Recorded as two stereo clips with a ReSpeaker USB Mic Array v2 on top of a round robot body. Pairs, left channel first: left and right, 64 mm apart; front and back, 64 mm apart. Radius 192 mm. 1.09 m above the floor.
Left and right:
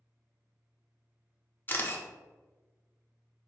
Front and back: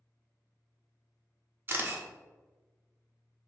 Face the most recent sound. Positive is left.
turn(degrees=135)